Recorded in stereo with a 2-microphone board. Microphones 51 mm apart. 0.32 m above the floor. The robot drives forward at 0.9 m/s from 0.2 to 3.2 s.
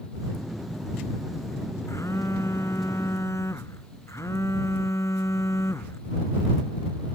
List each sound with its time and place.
1.9 s a phone buzzing: 70° left (ahead or behind)